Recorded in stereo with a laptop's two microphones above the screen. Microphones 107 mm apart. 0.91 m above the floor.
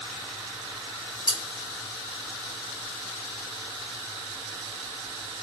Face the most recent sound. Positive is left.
turn(degrees=-40)  # may be behind; listen again after turning